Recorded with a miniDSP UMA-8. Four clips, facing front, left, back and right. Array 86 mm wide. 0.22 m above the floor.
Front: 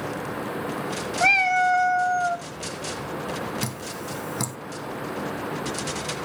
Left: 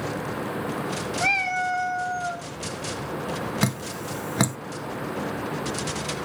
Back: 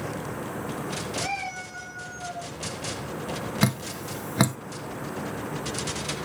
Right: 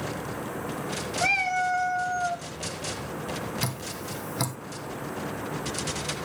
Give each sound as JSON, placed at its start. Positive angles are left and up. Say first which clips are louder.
{"t": 1.2, "sound": "a cat meowing", "louder": "even, front 12 dB", "azimuth_deg": 15, "distance_m": 0.6}
{"t": 3.6, "sound": "dripping", "louder": "left 6 dB, back 4 dB", "azimuth_deg": 135, "distance_m": 0.5}